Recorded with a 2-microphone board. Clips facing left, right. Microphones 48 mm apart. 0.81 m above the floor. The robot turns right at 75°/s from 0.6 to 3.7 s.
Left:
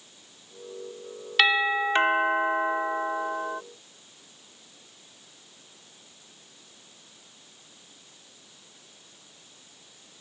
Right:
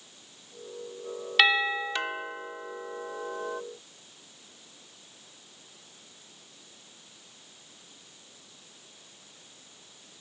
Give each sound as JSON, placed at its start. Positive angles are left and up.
{"t": 1.4, "sound": "a doorbell", "azimuth_deg": 0}